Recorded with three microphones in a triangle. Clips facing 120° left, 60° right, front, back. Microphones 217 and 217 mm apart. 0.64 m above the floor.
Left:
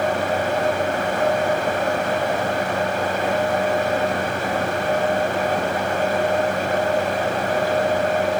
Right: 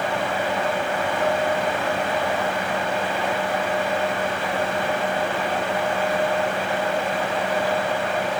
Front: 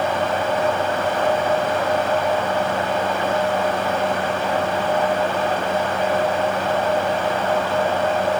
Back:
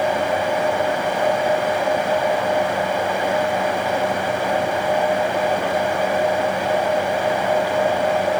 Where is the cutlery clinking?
I don't hear cutlery clinking.